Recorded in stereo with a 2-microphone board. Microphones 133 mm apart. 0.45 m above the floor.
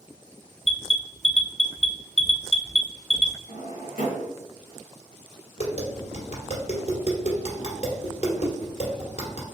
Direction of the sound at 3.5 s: 85° left.